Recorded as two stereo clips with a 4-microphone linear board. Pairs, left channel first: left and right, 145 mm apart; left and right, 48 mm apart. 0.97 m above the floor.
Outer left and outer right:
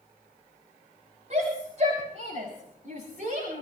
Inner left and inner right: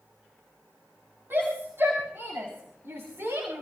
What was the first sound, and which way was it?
A shout, 50° right (ahead or behind).